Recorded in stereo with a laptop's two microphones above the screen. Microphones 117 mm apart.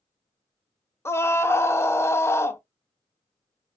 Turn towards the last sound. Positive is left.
turn(degrees=20)  # may be behind; listen again after turning